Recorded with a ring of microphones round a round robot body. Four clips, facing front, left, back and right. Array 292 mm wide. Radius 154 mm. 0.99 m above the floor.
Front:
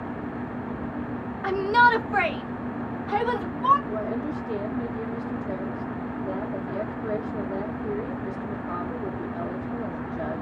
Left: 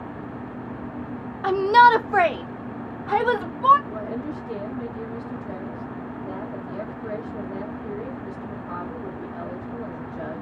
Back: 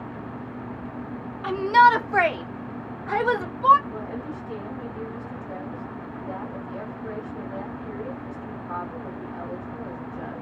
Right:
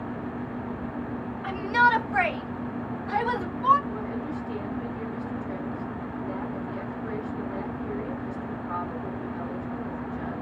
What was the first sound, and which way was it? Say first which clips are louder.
A shout: left 8 dB, back 3 dB; 80° left.